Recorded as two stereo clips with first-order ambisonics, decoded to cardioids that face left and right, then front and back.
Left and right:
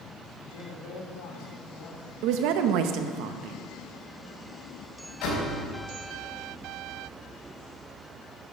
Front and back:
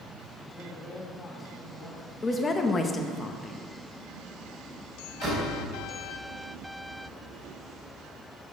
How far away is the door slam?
About 4 m.